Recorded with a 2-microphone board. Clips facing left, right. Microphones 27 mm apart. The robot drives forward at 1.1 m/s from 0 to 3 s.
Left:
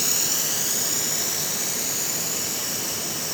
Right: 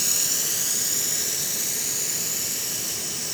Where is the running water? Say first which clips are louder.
Left 1 dB; 5° left (ahead or behind), 2.5 m; by 3.3 s centre (ahead or behind), 6 m.